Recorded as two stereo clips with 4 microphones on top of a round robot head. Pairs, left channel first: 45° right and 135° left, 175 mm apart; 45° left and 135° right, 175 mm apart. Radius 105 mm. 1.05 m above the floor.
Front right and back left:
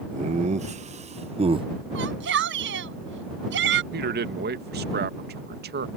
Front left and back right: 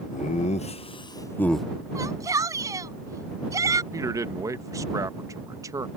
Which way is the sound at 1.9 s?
155° left.